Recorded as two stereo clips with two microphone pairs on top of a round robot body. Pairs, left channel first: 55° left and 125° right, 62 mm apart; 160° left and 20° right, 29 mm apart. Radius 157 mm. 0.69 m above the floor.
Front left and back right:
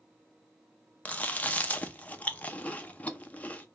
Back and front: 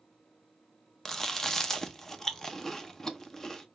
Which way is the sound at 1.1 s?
100° left.